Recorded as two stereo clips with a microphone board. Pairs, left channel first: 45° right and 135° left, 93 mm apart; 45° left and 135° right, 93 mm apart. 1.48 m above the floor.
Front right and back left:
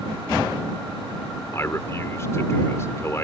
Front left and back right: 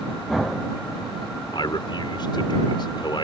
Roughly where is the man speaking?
Ahead.